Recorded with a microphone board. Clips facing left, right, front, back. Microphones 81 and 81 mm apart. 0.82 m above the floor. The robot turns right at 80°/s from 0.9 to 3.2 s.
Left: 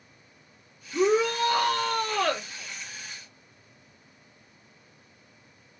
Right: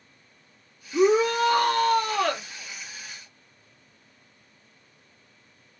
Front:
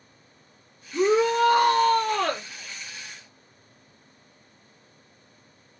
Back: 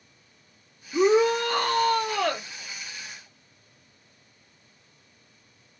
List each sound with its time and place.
0.9 s a shout: 130° right, 1.6 m; by 2.5 s 5° right, 1.6 m